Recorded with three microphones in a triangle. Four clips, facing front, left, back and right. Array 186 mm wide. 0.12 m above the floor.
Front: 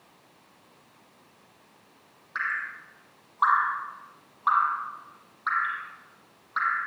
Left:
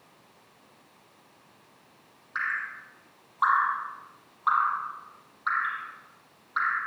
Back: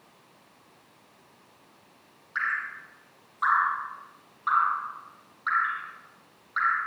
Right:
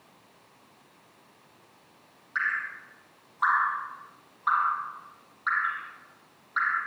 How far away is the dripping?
About 4.5 m.